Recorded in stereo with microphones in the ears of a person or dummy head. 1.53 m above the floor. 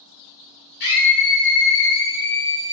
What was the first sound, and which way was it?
A scream, 65° left (ahead or behind).